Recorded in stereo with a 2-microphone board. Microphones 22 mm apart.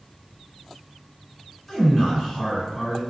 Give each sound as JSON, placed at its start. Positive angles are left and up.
{"t": 1.7, "sound": "a man speaking", "side_deg": 15, "distance_m": 1.7}